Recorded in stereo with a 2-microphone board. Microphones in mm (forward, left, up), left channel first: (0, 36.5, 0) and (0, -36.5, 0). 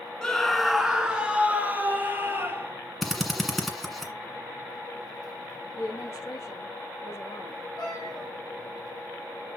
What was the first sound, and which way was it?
A scream, 10° left (ahead or behind).